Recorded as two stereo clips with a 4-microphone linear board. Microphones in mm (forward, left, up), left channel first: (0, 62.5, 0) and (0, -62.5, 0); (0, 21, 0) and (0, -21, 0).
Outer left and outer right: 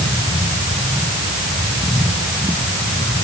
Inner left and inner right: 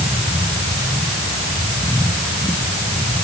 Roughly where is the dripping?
I don't hear dripping.